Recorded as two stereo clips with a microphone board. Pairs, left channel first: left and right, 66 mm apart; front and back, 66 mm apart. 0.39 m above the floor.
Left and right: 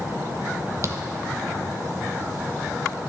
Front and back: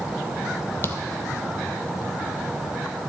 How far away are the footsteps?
About 0.6 m.